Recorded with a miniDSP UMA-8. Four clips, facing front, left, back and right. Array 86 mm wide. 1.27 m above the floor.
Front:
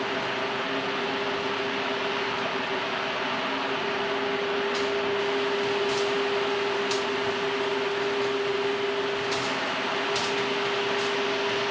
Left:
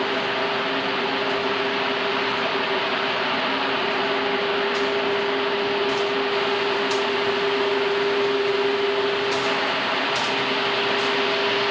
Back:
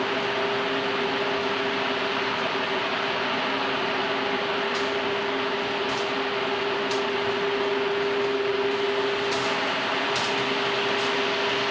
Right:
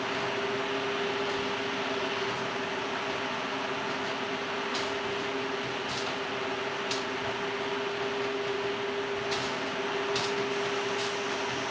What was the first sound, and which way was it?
Only background noise.